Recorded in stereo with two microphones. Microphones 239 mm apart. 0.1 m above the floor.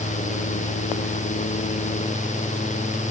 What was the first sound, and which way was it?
Only background noise.